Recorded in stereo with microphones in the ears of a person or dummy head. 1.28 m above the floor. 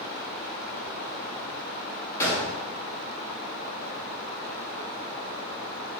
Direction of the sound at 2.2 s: 20° left (ahead or behind).